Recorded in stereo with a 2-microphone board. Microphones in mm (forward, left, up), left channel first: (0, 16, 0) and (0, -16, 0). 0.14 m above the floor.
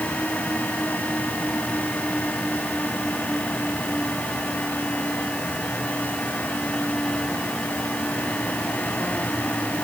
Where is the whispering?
I don't hear whispering.